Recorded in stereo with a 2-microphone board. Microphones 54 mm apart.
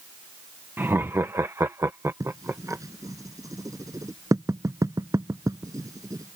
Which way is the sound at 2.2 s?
90° right.